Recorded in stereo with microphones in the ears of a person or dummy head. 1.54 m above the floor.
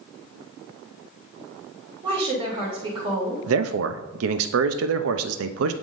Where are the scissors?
I don't hear scissors.